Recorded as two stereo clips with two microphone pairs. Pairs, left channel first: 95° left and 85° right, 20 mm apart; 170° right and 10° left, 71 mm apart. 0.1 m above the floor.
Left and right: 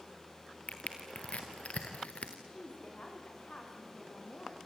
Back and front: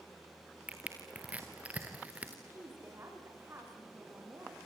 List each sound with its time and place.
0.7 s crushing: 85° left, 2.5 m
2.5 s a woman speaking: 65° left, 9 m